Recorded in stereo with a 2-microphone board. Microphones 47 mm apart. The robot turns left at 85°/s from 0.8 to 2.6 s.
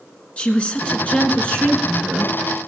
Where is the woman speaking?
110° left, 1.4 m; by 2.4 s 20° right, 1.4 m.